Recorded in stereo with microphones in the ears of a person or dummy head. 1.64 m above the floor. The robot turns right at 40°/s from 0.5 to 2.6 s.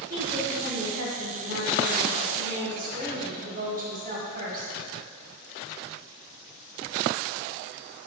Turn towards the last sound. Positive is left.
turn(degrees=-50)